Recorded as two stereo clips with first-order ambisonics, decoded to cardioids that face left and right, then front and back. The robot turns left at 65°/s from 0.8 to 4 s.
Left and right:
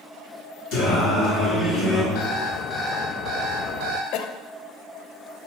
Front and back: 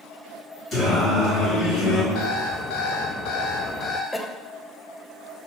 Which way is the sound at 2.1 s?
45° left.